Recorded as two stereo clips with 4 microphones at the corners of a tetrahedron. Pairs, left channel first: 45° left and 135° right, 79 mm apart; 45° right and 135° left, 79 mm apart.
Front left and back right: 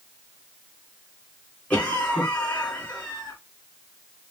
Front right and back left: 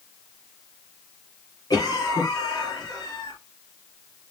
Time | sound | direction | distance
1.7 | a cough | 25° right | 3 m